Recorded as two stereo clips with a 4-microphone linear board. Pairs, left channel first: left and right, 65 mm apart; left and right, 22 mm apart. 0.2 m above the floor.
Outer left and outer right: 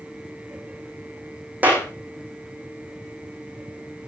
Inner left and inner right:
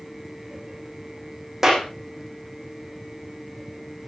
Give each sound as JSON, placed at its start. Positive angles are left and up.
{"t": 1.6, "sound": "a clap", "side_deg": -25, "distance_m": 7.0}